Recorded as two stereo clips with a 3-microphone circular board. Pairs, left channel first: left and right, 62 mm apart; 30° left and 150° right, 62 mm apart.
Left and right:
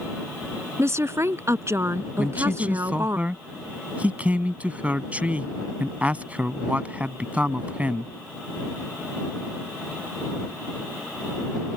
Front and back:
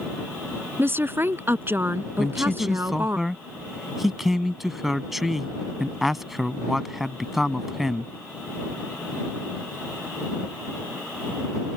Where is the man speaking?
70° right.